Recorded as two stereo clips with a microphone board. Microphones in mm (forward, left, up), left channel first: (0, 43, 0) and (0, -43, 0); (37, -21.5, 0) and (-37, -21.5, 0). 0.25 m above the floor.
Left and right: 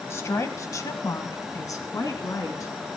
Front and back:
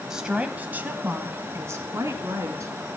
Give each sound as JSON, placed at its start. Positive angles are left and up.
{"t": 0.1, "sound": "a woman speaking", "azimuth_deg": 105, "distance_m": 1.2}